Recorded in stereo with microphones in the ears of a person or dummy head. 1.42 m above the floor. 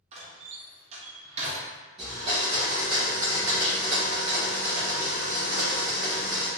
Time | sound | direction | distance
0.1 | a door slam | 35° right (ahead or behind) | 0.7 m
2.0 | a blender | 20° right (ahead or behind) | 0.9 m